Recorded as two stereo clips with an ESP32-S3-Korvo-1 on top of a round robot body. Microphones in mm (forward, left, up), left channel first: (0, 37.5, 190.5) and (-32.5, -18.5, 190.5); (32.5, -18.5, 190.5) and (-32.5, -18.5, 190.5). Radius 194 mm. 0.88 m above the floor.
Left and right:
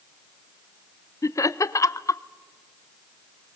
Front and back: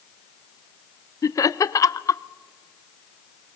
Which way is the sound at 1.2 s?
30° left.